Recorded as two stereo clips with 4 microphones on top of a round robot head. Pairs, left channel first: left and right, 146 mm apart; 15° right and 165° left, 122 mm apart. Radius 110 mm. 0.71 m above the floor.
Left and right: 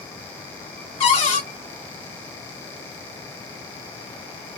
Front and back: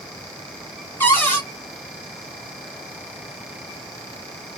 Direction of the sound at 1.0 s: 55° left.